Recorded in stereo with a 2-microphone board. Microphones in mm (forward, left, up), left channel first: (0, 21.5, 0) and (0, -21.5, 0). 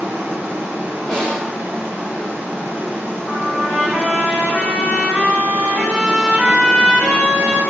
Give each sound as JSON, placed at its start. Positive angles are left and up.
{"t": 0.0, "sound": "running water", "side_deg": -55, "distance_m": 0.9}
{"t": 1.1, "sound": "a snare drum", "side_deg": 0, "distance_m": 1.0}
{"t": 3.3, "sound": "a trumpet", "side_deg": 0, "distance_m": 1.7}